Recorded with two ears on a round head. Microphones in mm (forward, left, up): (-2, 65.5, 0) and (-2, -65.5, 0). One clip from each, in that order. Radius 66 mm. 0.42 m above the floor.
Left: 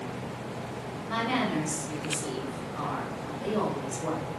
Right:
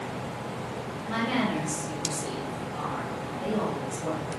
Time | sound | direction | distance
1.1 | a woman speaking | 15° left (ahead or behind) | 1.1 m